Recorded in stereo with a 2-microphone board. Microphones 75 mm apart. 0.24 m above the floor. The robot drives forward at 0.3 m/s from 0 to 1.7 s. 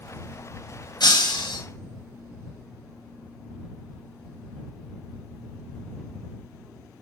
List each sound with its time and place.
1.0 s breaking glass: 80° left, 4 m